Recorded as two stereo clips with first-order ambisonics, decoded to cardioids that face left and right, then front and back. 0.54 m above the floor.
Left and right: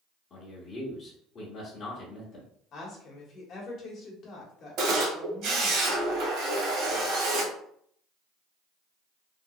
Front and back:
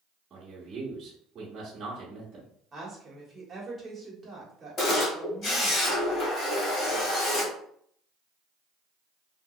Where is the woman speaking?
110° left, 1.3 m.